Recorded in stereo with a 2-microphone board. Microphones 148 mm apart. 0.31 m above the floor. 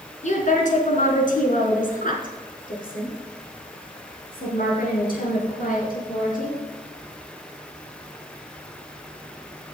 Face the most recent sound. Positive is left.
turn(degrees=75)  # may be behind; listen again after turning